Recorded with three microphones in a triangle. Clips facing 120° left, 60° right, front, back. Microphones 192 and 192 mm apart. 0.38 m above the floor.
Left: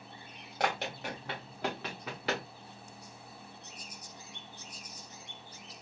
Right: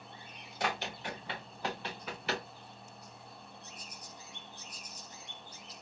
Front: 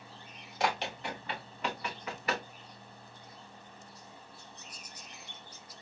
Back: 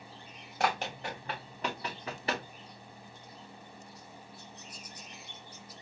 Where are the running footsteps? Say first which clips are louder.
Left 3 dB, back 1 dB; 140° left, 2.5 m; by 2.5 s 115° left, 2 m.